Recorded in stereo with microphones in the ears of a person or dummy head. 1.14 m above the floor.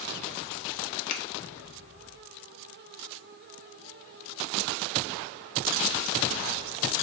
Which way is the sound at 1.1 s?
40° left (ahead or behind).